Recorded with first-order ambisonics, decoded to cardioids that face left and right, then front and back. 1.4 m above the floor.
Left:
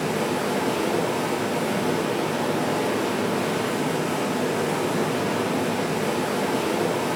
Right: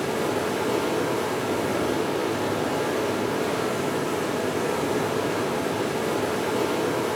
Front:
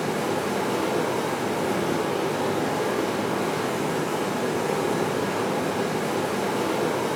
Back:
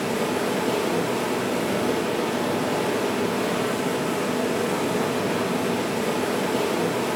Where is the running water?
140° left, 4 m.